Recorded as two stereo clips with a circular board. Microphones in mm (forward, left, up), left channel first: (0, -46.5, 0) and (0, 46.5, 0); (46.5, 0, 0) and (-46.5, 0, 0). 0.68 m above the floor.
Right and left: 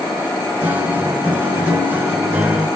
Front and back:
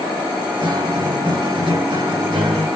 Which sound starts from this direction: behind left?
A guitar, at 0.6 s.